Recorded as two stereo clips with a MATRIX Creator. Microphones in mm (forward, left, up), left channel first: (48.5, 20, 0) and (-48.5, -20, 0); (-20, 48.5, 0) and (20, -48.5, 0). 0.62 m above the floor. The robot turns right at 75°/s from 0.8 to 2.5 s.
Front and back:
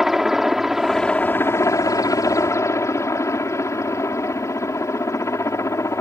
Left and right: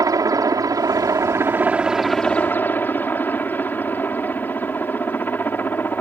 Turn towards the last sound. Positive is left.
turn(degrees=55)